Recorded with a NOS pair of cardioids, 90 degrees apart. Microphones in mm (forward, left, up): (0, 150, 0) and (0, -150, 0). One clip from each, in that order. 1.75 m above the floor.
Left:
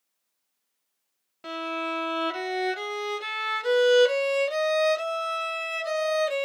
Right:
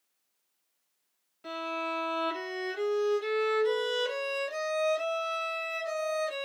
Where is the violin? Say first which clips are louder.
Left 3 dB; 55° left, 0.9 m.